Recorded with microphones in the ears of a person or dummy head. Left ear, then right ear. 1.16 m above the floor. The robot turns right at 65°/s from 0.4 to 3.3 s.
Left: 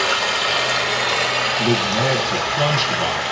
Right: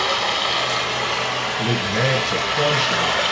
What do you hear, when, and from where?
0.0 s running water: 60° left, 1.0 m; by 3.3 s 115° right, 1.0 m
1.6 s a man speaking: 40° right, 1.1 m; by 3.2 s 65° left, 1.1 m